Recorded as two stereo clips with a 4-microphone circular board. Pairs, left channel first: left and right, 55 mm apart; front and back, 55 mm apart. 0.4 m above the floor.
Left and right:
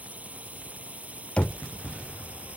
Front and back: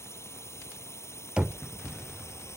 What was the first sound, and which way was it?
A drone, 30° right.